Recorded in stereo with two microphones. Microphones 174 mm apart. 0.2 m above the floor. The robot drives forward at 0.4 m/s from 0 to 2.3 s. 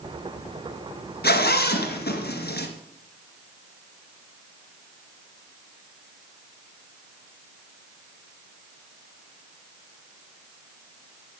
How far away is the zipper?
About 2.5 m.